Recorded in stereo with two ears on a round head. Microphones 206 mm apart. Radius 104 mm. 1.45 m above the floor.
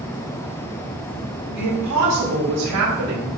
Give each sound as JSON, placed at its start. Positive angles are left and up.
{"t": 1.6, "sound": "a woman speaking", "side_deg": -85, "distance_m": 4.5}